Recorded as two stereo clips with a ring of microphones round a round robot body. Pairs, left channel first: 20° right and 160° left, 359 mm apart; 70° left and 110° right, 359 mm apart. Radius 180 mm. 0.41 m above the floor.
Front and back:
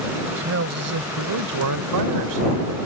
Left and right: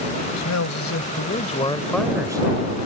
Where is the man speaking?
105° left; by 2.8 s 175° right.